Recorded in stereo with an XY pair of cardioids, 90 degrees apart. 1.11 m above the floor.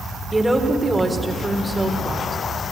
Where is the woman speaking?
15° right, 3.5 m.